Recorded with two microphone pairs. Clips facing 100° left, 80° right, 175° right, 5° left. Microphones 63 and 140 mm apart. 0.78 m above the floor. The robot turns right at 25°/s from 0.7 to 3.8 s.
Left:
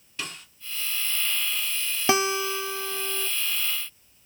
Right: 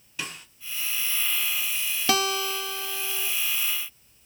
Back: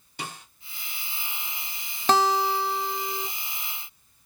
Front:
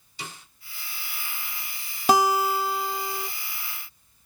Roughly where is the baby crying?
I don't hear a baby crying.